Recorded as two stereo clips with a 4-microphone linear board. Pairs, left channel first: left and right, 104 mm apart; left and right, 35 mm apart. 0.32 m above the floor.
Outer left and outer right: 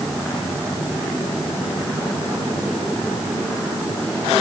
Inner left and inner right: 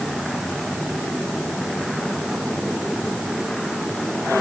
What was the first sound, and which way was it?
Only background noise.